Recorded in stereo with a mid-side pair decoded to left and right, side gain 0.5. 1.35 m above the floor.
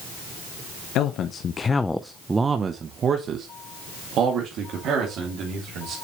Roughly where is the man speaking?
Left.